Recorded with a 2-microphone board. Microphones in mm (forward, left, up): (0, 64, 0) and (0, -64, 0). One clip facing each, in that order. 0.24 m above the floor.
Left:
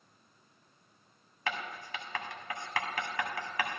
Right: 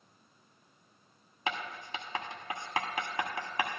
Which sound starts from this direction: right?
Writing, at 1.5 s.